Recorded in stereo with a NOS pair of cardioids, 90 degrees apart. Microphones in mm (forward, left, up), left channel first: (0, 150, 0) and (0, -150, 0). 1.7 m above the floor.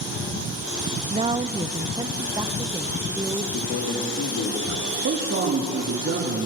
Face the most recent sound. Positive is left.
turn(degrees=-45)